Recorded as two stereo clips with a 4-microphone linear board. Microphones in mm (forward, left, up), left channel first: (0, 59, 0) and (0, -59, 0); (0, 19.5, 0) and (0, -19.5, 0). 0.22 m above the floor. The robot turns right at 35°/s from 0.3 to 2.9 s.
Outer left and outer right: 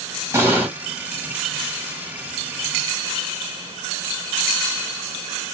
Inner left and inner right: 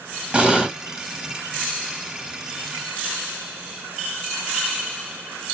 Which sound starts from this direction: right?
An explosion, at 0.3 s.